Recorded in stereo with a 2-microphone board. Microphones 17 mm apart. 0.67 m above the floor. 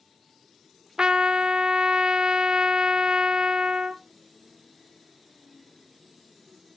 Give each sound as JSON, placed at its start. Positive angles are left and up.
{"t": 1.0, "sound": "a trumpet", "side_deg": -65, "distance_m": 0.8}